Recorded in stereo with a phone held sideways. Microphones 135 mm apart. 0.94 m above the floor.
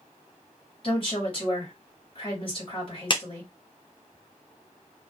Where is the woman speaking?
40° left (ahead or behind), 1.8 m.